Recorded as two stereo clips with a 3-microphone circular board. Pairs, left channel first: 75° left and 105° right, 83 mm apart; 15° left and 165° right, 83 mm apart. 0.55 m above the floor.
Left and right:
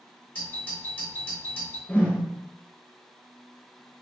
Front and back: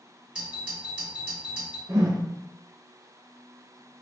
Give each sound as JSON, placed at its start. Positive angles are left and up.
{"t": 0.3, "sound": "a doorbell", "azimuth_deg": 130, "distance_m": 2.0}
{"t": 1.9, "sound": "a whoosh", "azimuth_deg": 145, "distance_m": 0.6}